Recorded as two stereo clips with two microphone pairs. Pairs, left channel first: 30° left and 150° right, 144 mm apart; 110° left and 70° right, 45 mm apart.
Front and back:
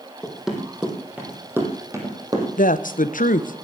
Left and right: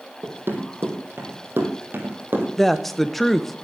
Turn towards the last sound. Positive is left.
turn(degrees=25)